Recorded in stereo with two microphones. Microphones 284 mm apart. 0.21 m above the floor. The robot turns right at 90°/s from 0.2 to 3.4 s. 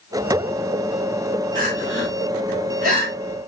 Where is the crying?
30° right (ahead or behind), 2.5 m; by 3.5 s 15° left (ahead or behind), 2.5 m.